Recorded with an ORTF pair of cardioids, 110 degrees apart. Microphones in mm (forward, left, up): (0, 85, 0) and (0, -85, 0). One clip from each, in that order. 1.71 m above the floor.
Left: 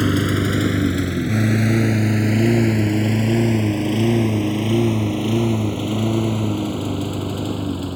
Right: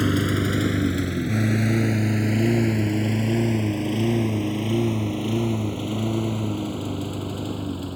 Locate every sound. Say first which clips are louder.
0.0 s a lawn mower: left 3 dB; 15° left; by 8.0 s 30° left